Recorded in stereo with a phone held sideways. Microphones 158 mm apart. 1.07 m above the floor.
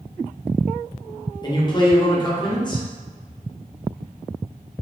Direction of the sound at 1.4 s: 30° left (ahead or behind).